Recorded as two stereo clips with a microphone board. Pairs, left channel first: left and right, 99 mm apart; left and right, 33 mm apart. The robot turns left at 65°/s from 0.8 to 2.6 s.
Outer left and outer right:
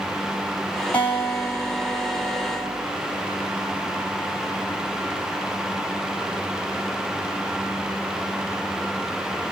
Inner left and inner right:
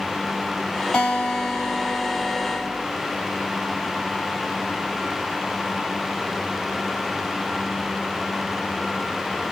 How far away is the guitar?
About 1.8 m.